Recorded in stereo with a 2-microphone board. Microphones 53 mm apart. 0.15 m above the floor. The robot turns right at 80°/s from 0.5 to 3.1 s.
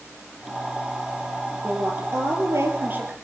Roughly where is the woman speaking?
Behind right.